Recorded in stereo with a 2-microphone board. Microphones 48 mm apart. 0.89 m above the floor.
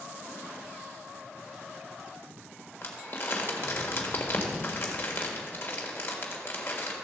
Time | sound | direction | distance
2.8 | crumpling | 50° left (ahead or behind) | 1.6 m